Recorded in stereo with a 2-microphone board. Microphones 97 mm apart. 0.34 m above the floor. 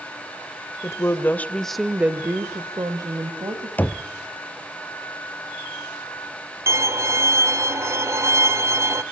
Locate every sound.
0.8 s a woman speaking: 30° left (ahead or behind), 1.3 m; by 3.7 s 45° right (ahead or behind), 2 m
3.8 s knocking: 20° left (ahead or behind), 0.7 m
6.7 s a violin: 30° right (ahead or behind), 0.8 m